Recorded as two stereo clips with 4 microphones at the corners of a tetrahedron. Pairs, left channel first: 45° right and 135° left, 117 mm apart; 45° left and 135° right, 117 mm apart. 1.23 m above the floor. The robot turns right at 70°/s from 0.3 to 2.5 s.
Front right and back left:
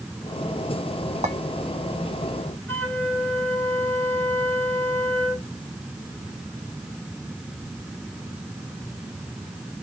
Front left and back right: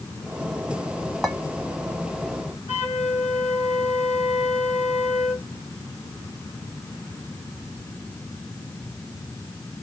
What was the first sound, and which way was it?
A clink, 135° left.